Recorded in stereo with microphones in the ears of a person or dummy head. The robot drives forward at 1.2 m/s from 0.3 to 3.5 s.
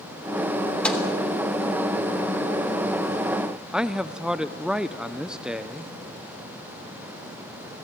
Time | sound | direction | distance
0.8 | a microwave | 5° left (ahead or behind) | 3 m
3.7 | a man speaking | centre (ahead or behind) | 0.5 m